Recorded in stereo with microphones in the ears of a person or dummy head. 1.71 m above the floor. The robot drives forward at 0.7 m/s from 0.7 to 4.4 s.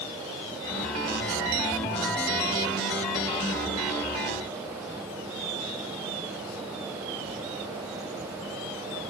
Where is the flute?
No flute in this recording.